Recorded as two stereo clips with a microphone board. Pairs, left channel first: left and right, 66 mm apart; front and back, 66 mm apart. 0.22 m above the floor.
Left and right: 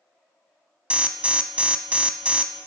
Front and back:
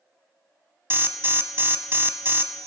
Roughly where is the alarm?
Behind right.